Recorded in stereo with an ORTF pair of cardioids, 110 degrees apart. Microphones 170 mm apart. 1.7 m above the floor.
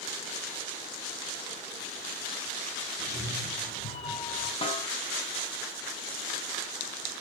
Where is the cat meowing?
35° left, 5.5 m; by 4.5 s 45° left, 4.5 m.